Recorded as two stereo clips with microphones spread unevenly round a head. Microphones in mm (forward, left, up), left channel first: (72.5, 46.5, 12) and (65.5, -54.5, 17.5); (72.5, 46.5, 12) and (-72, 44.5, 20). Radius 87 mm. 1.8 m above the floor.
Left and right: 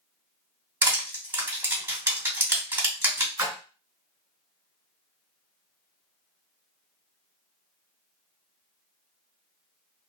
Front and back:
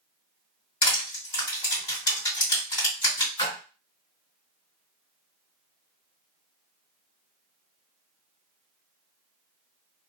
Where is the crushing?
45° right, 2.0 m.